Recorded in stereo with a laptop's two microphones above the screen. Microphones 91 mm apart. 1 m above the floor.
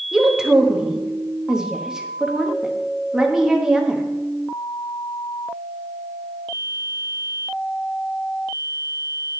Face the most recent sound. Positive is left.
turn(degrees=-5)  # may be behind; listen again after turning